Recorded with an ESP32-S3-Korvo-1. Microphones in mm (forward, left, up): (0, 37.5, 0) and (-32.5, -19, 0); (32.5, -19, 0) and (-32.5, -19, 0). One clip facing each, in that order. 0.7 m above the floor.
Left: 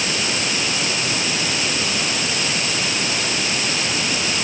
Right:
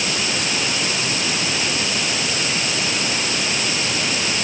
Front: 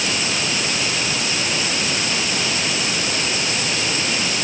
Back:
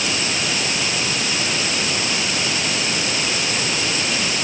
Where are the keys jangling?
I don't hear keys jangling.